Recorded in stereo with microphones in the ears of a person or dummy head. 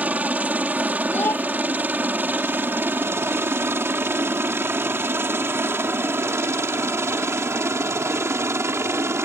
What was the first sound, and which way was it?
A helicopter, 10° right (ahead or behind).